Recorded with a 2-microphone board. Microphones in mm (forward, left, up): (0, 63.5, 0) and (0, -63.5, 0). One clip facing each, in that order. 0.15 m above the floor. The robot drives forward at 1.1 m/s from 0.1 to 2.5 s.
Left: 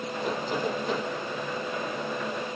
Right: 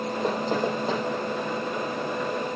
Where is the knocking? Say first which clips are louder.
Right 3 dB; 35° right (ahead or behind), 4 m; by 1.0 s 30° right (ahead or behind), 5 m.